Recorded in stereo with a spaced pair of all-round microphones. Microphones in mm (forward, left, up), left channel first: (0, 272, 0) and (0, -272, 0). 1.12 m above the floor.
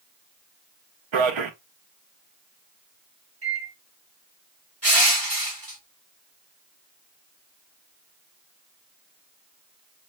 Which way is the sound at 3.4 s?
45° right (ahead or behind).